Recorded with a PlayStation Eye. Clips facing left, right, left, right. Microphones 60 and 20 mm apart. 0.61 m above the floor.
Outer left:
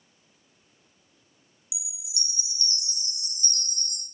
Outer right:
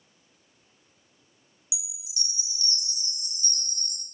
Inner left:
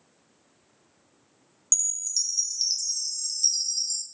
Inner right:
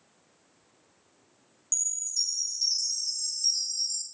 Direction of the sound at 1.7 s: 45° left (ahead or behind).